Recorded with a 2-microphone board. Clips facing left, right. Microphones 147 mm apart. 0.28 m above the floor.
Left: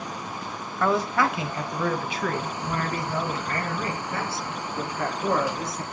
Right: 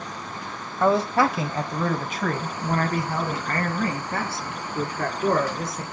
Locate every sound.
0.8 s a man speaking: 25° right (ahead or behind), 1.1 m; by 5.8 s 60° right (ahead or behind), 3.5 m